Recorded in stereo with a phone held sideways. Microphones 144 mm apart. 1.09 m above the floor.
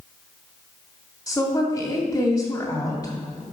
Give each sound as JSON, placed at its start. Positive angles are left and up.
{"t": 1.3, "sound": "a woman speaking", "side_deg": 30, "distance_m": 2.5}